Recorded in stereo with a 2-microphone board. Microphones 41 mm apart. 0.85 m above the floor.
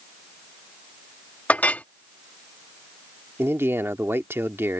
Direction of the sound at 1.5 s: 40° left (ahead or behind).